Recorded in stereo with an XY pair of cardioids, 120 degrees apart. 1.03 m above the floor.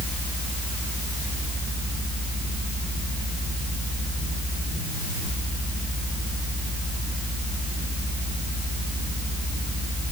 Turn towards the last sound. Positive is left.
No sound to turn to.